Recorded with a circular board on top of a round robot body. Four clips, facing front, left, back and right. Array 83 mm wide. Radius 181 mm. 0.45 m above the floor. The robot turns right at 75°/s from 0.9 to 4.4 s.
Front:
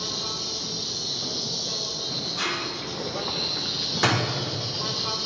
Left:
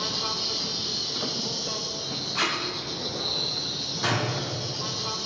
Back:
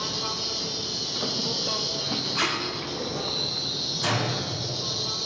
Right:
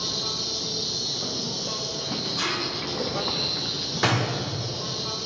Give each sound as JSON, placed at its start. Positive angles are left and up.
{"t": 0.0, "sound": "an insect", "azimuth_deg": 115, "distance_m": 0.7}
{"t": 2.4, "sound": "tape being pulled", "azimuth_deg": 125, "distance_m": 1.2}
{"t": 4.0, "sound": "a door slam", "azimuth_deg": -40, "distance_m": 1.0}